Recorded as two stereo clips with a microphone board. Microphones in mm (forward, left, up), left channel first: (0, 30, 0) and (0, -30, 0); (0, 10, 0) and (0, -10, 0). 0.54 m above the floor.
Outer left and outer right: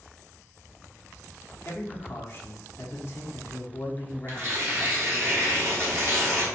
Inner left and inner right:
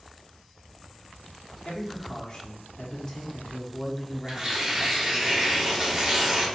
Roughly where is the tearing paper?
Right.